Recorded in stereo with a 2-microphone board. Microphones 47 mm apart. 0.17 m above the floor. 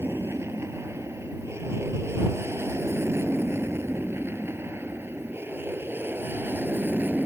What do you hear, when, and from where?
0.0 s an aircraft: 70° right (ahead or behind); by 7.3 s 45° right (ahead or behind)